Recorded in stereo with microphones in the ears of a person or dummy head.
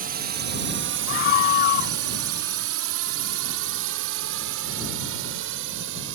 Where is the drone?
45° right (ahead or behind); by 6.2 s 60° right (ahead or behind).